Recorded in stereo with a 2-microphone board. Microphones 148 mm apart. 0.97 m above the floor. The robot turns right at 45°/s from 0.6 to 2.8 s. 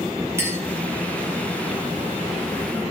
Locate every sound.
0.4 s a clink: 20° right (ahead or behind), 2 m